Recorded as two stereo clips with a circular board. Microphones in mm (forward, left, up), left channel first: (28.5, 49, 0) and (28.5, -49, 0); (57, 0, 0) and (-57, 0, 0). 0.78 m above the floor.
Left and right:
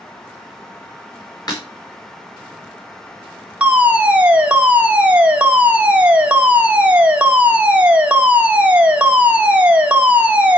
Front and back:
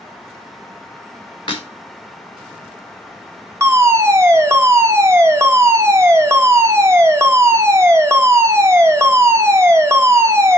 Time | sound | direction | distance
1.5 | breaking glass | 45° left | 4 m
3.6 | a fire alarm | 150° right | 1.8 m